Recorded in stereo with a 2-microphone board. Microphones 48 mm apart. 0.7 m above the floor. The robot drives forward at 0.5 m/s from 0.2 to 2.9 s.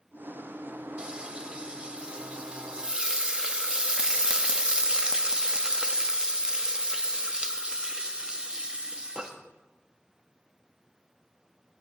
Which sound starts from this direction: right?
Frying, at 1.0 s.